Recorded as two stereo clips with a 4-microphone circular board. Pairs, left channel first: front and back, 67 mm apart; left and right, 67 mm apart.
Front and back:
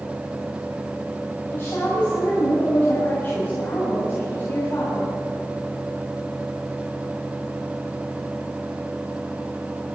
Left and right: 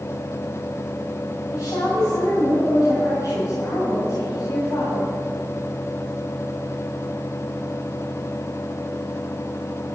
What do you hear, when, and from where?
1.5 s a woman speaking: 60° left, 7 m